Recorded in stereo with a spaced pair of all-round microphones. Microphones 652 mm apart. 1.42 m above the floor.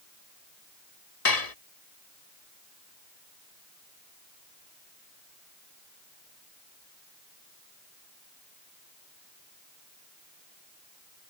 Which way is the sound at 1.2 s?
70° left (ahead or behind).